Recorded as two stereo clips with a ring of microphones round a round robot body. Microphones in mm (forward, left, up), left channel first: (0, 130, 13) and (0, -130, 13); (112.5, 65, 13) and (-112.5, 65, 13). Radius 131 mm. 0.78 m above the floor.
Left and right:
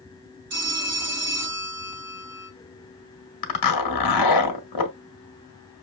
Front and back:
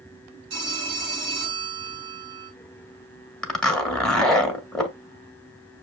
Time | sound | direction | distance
0.5 | a phone ringing | 125° right | 4.5 m
3.4 | a zipper | 85° left | 1.3 m